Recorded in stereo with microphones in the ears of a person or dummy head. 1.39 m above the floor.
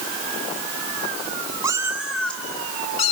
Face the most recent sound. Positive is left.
turn(degrees=40)  # may be behind; listen again after turning